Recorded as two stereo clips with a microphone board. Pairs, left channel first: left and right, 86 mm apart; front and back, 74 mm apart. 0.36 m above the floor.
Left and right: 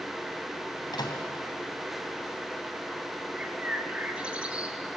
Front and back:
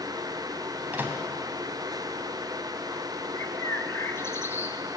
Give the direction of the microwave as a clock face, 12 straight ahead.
8 o'clock.